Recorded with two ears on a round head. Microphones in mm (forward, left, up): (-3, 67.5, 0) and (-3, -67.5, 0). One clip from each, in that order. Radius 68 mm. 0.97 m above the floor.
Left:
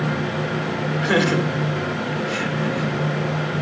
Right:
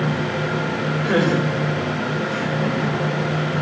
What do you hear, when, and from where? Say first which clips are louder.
1.0 s laughter: left 1 dB; 60° left (ahead or behind), 4 m